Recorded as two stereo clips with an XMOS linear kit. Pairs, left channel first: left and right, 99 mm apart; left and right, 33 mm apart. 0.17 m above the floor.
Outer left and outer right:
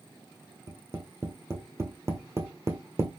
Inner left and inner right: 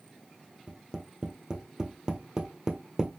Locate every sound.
0.7 s tapping: 30° right (ahead or behind), 1.2 m